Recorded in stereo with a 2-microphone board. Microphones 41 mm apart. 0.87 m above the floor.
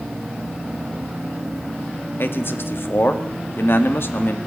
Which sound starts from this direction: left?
A man speaking, at 2.2 s.